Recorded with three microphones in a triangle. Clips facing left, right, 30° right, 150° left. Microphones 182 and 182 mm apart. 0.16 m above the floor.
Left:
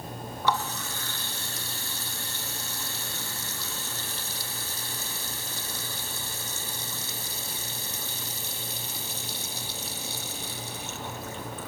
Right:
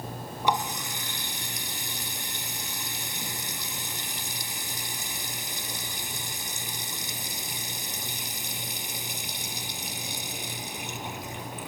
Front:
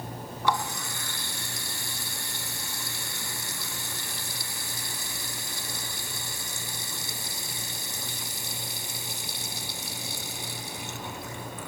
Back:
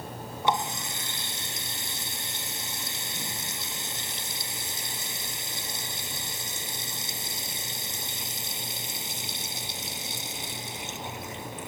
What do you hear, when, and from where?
0.4 s a running tap: 155° right, 1.0 m